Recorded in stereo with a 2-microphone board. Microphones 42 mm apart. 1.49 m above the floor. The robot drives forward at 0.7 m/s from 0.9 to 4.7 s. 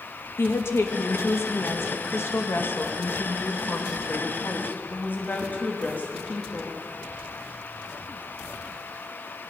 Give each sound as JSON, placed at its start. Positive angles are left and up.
{"t": 0.4, "sound": "a woman speaking", "side_deg": 80, "distance_m": 2.5}